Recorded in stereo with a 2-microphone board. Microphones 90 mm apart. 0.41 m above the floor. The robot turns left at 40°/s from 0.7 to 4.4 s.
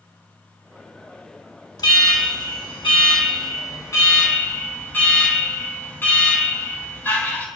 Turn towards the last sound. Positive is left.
turn(degrees=25)